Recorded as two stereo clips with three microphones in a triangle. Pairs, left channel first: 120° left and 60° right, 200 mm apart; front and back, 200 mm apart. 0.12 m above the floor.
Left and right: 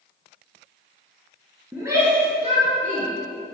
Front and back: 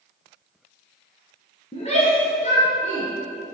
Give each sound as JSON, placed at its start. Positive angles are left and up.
{"t": 1.7, "sound": "a shout", "azimuth_deg": 15, "distance_m": 1.8}